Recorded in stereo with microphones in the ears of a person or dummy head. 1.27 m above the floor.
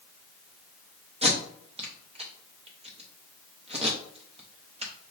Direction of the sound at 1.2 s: 30° right (ahead or behind).